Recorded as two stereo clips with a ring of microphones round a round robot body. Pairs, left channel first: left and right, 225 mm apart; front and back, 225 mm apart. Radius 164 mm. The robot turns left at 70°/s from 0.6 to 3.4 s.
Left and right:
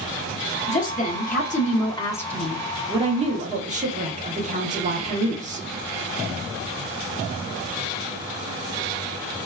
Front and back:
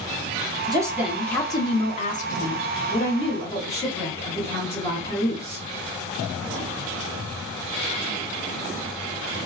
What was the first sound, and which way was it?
A woman speaking, 125° left.